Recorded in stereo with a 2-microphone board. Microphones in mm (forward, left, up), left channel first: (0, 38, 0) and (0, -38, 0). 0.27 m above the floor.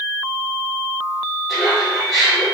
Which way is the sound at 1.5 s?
5° right (ahead or behind).